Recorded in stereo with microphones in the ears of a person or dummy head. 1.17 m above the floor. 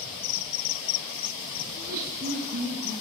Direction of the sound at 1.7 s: 55° right (ahead or behind).